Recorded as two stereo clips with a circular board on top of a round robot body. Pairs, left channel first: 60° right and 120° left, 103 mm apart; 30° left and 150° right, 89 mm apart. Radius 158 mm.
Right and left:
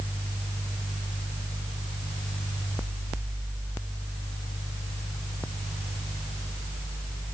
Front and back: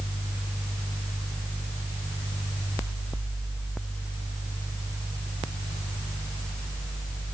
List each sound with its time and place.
Only background noise.